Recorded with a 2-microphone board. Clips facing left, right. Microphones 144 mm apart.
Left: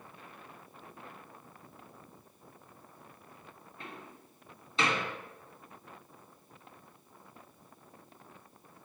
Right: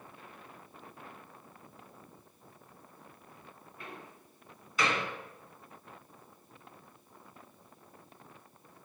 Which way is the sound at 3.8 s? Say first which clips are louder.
Even; 25° left (ahead or behind).